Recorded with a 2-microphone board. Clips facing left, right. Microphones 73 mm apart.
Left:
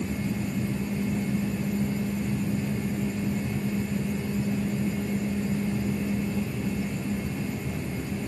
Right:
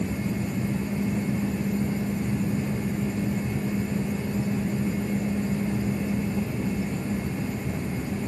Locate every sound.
Only background noise.